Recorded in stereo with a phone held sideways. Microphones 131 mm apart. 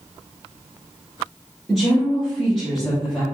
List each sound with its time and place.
1.7 s a woman speaking: centre (ahead or behind), 0.9 m